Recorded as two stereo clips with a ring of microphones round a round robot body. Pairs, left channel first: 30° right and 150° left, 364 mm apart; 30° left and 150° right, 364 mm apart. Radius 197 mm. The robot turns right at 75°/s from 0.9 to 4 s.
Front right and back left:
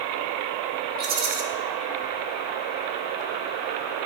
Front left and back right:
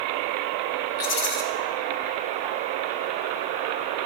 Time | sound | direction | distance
1.0 | a rattle | 80° left | 1.2 m